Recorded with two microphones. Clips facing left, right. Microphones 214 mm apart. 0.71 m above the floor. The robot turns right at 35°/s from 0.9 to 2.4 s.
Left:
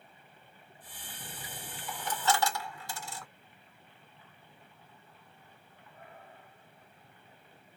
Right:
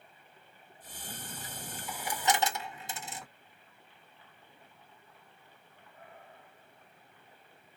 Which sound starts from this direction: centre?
A dropped coin, at 1.2 s.